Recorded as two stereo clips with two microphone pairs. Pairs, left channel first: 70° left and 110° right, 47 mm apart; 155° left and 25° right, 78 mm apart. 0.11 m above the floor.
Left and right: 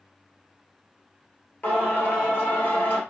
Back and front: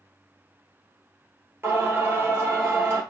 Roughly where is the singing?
Ahead left.